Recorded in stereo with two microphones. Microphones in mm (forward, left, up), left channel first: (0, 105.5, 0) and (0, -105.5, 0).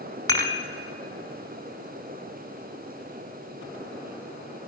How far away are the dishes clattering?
About 1.0 m.